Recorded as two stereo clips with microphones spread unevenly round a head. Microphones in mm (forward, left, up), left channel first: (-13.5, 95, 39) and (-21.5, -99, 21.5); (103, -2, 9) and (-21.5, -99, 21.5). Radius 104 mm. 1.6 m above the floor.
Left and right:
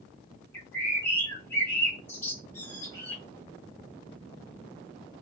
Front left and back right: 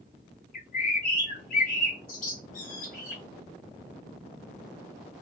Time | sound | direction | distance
0.5 | a bird | 10° left | 1.4 m